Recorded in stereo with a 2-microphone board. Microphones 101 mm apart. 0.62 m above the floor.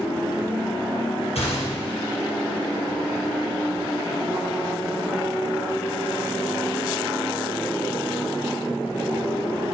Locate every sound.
1.4 s a gunshot: 85° left, 4.5 m